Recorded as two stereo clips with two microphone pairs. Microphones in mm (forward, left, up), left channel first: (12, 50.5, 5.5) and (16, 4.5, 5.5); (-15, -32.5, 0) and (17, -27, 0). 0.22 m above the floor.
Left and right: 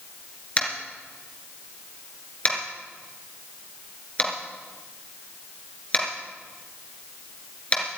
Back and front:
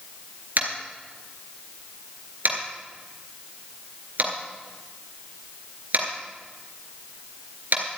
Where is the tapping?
35° left, 2.5 m.